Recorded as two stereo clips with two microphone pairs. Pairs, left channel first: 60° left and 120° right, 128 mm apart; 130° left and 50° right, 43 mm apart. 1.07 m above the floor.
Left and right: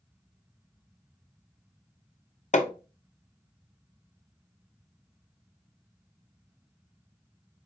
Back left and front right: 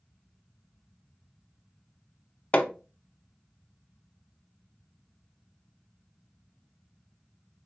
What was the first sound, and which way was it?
Hammering, 75° left.